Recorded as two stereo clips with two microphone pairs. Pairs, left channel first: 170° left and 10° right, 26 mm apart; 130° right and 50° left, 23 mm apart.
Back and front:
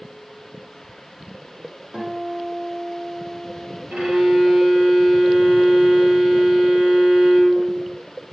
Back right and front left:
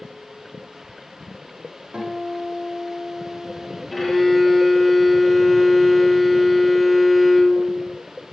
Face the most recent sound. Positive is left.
turn(degrees=-40)